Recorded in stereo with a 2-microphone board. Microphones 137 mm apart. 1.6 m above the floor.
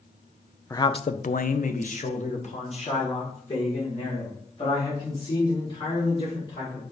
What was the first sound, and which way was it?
A man speaking, 20° left (ahead or behind).